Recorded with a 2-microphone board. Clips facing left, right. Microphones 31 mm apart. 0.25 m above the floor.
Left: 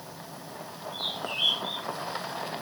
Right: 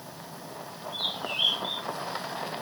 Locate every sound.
0.9 s a bird: 10° right (ahead or behind), 4 m